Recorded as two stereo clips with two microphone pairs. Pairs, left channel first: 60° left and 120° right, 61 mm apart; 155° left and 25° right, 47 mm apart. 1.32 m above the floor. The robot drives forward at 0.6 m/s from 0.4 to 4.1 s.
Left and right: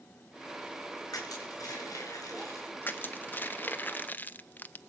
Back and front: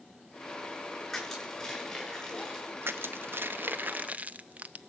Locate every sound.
1.1 s crushing: 80° left, 9 m; by 3.5 s 90° left, 8.5 m
2.8 s crushing: 5° left, 1.3 m; by 4.8 s 10° left, 0.6 m